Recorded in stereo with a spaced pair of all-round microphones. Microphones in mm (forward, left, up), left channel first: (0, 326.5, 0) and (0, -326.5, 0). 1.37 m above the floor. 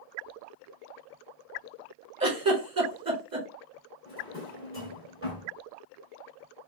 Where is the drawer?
20° left (ahead or behind), 1.4 m.